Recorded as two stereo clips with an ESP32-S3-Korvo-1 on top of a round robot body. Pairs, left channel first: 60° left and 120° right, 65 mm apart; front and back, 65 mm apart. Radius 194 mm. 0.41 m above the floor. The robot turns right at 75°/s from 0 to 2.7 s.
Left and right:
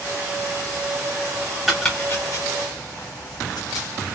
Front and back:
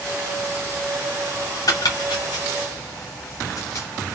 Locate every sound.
1.7 s chopping: 35° right, 0.7 m; by 3.9 s 45° left, 0.7 m